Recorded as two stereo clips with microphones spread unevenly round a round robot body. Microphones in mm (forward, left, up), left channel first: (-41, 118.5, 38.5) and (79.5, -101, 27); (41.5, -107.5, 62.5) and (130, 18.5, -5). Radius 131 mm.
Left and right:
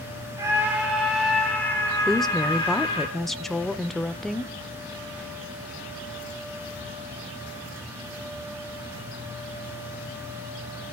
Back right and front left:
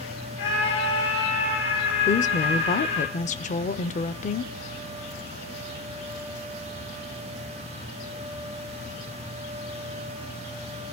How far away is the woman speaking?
About 0.9 m.